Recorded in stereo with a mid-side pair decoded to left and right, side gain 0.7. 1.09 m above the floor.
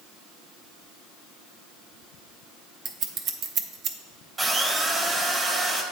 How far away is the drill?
About 1.3 m.